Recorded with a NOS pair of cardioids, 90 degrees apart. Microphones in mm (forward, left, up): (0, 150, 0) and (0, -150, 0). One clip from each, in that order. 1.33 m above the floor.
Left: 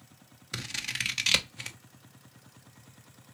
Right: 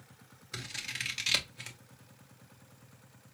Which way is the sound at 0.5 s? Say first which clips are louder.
Left 5 dB; 30° left.